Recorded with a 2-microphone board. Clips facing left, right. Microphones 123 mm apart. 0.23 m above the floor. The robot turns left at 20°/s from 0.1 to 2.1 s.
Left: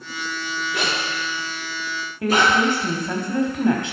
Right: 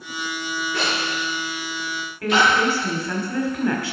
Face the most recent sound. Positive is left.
turn(degrees=20)  # may be behind; listen again after turning